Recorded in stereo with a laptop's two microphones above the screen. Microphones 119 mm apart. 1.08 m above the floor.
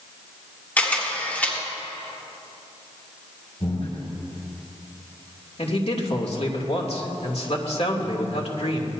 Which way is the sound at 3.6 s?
60° left (ahead or behind).